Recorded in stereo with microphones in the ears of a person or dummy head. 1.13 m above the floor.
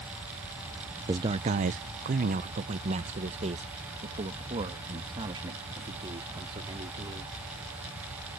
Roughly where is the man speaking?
Centre.